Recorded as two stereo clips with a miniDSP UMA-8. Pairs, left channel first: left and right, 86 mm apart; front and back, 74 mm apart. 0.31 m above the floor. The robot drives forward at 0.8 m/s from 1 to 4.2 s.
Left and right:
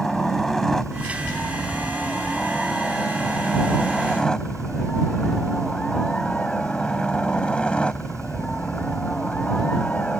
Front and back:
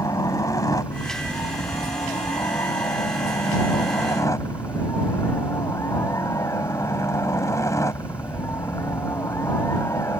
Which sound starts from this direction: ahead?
A helicopter, at 0.0 s.